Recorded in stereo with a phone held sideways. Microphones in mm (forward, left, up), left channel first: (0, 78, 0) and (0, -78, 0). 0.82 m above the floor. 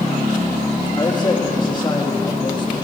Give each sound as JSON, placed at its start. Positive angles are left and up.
{"t": 1.0, "sound": "a man speaking", "side_deg": 30, "distance_m": 1.3}